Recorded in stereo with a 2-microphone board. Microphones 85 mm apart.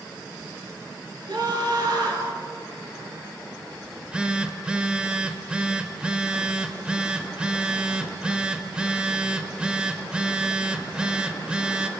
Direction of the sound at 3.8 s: 10° right (ahead or behind).